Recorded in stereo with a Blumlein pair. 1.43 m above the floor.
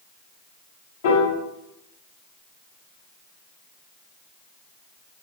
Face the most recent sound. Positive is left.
turn(degrees=55)